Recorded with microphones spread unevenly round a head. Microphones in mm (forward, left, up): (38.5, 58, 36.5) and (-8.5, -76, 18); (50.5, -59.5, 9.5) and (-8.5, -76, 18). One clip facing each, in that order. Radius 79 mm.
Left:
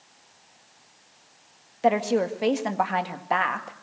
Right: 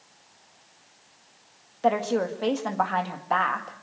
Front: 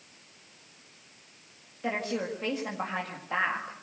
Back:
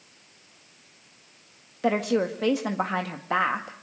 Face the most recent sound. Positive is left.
turn(degrees=150)